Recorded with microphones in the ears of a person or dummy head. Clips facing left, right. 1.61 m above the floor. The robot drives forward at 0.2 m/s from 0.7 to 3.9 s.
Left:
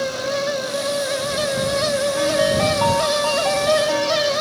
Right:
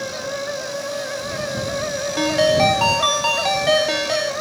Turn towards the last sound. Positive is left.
turn(degrees=-45)  # may be behind; listen again after turning